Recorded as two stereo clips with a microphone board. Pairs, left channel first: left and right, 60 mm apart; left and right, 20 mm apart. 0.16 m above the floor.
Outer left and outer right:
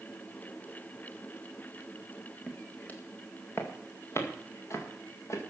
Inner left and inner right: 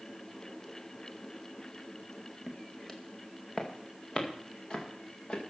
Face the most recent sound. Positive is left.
turn(degrees=50)  # may be behind; listen again after turning